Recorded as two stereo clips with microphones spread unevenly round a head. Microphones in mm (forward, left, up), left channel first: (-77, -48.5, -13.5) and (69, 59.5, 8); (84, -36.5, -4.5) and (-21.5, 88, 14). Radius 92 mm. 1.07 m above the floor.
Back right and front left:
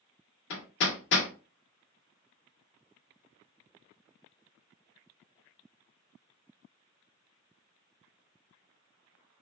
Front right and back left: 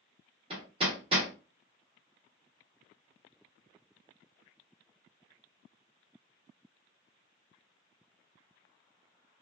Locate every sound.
0.5 s hammering: 170° right, 0.8 m